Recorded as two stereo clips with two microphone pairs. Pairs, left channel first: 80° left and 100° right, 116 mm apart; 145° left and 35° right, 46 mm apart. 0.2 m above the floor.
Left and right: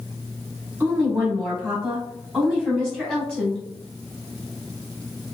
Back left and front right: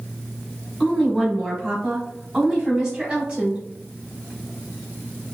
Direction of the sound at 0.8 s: 160° right.